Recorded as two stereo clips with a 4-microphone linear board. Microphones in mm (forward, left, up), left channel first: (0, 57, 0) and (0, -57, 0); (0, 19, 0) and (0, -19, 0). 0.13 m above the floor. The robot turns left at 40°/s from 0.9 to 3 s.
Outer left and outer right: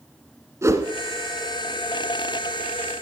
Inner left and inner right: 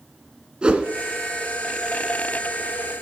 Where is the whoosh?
25° right (ahead or behind), 1.3 m.